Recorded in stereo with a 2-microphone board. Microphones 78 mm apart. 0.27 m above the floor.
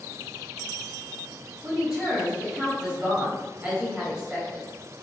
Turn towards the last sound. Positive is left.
turn(degrees=-15)  # may be behind; listen again after turning